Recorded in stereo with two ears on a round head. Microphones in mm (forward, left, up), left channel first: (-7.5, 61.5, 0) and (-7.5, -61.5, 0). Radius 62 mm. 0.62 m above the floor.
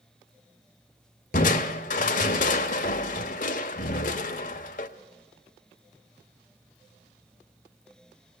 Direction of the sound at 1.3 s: 60° left (ahead or behind).